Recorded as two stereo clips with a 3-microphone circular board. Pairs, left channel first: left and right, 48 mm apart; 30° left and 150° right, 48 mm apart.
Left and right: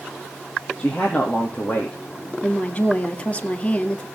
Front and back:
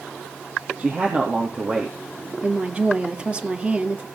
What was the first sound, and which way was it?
A man speaking, 160° left.